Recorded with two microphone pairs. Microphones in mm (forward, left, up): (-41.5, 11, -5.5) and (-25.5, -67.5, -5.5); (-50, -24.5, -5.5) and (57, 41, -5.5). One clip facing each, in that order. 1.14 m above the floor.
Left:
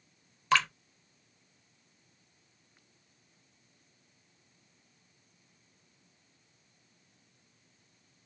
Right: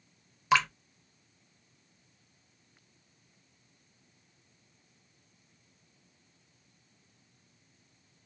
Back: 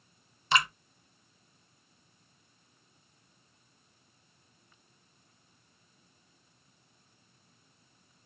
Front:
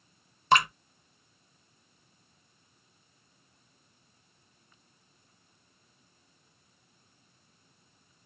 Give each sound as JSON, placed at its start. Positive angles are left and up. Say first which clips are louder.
{"t": 0.5, "sound": "dripping", "louder": "right 2 dB, front 5 dB", "azimuth_deg": 0, "distance_m": 0.7}